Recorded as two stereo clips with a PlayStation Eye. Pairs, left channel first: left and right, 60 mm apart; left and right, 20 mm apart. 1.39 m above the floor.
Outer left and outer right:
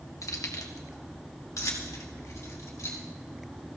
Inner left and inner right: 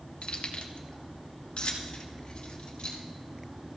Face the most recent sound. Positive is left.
turn(degrees=60)  # may be behind; listen again after turning